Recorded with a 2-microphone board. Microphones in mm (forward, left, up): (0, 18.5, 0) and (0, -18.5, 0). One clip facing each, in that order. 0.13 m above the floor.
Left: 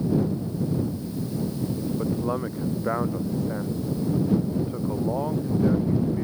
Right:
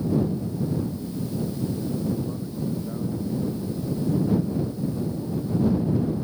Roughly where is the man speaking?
Left.